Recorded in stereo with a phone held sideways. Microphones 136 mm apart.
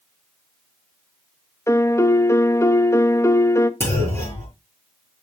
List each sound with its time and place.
1.7 s a piano: 20° left (ahead or behind), 0.6 m
3.8 s a clunk: 20° left (ahead or behind), 5 m